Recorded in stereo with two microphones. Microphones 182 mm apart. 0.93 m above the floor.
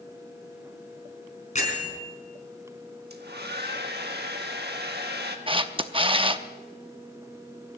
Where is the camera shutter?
30° right (ahead or behind), 0.7 m.